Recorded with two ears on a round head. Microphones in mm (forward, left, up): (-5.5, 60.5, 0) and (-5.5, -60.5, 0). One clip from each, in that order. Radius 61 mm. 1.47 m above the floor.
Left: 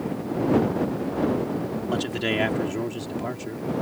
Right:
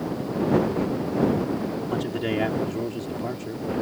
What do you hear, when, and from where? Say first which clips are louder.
1.9 s a man speaking: left 3 dB; 60° left (ahead or behind); by 3.7 s 20° left (ahead or behind)